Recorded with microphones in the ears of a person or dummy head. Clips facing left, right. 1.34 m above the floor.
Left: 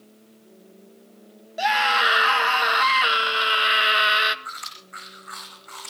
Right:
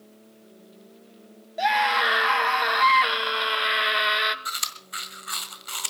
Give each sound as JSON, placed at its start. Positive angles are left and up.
{"t": 1.6, "sound": "a scream", "side_deg": 0, "distance_m": 1.8}
{"t": 4.5, "sound": "chewing", "side_deg": -45, "distance_m": 1.5}